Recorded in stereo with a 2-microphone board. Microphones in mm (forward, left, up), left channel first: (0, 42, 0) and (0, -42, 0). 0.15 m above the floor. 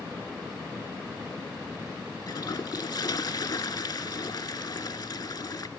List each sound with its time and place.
2.3 s a toilet flushing: 55° left (ahead or behind), 0.7 m